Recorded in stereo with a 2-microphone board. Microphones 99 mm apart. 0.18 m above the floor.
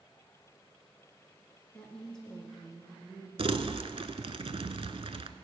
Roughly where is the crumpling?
Right.